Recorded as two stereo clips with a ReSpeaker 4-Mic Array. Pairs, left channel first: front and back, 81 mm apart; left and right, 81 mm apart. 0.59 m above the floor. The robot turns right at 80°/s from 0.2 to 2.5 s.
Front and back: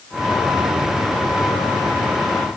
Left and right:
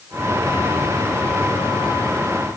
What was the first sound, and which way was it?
Only background noise.